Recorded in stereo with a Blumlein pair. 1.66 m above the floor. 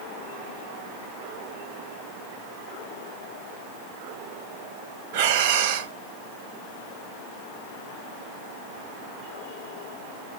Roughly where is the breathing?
Ahead right.